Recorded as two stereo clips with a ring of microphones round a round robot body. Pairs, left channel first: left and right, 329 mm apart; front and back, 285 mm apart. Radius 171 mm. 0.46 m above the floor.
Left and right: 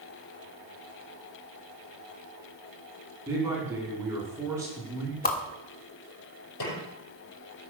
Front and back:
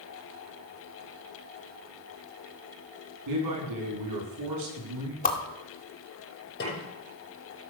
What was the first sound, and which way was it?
A man speaking, 170° right.